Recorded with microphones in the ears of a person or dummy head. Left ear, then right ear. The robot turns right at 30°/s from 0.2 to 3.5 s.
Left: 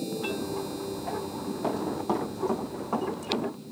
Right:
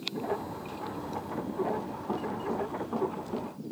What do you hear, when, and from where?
1.6 s running footsteps: 65° left (ahead or behind), 6.5 m